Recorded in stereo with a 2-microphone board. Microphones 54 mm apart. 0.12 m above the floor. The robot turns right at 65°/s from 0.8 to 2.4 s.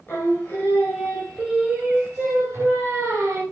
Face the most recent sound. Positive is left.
turn(degrees=-110)